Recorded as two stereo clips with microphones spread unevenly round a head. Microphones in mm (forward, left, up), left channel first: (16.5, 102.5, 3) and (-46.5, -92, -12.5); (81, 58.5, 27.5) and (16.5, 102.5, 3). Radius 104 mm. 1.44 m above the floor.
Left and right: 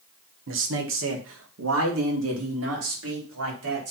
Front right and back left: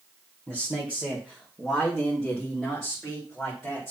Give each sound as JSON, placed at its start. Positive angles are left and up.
{"t": 0.5, "sound": "a man speaking", "azimuth_deg": -135, "distance_m": 1.5}